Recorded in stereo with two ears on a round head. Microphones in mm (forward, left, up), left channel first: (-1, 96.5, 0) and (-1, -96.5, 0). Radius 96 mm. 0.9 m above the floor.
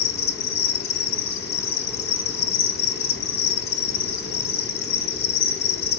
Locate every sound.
0.0 s an insect: 45° left (ahead or behind), 1.2 m